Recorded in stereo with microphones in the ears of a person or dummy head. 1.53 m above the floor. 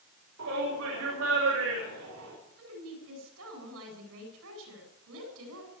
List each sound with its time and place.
0.4 s a shout: 65° right (ahead or behind), 6 m; by 2.3 s 80° right, 7 m
2.6 s a woman speaking: 75° right (ahead or behind), 8.5 m